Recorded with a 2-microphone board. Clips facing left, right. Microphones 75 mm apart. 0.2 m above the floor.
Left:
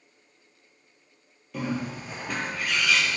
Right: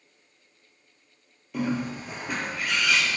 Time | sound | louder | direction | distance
1.5 | a bird | right 2 dB | 5° right (ahead or behind) | 1.2 m